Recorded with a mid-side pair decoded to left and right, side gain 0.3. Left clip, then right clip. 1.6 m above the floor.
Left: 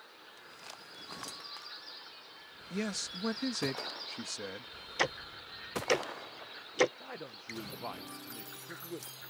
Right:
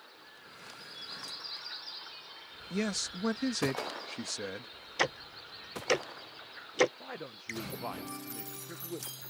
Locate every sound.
2.7 s a man speaking: 30° right
5.0 s ticking: 10° right
7.0 s a man speaking: 20° right